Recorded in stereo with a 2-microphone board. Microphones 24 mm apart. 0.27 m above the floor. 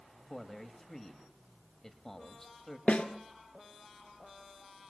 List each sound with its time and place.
0.3 s a man speaking: 20° left (ahead or behind), 1.2 m
2.9 s a snare drum: 80° left, 1.6 m